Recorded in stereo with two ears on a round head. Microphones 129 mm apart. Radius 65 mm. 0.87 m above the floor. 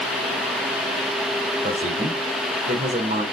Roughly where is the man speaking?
Right.